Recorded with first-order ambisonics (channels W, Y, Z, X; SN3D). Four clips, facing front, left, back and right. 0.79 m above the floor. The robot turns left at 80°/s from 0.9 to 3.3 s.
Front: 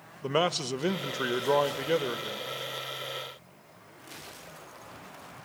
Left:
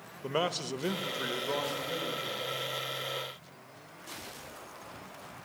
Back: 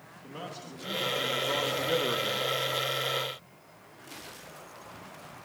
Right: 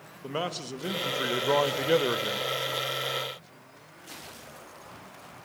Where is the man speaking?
5° left, 1.0 m; by 2.5 s 120° right, 1.0 m.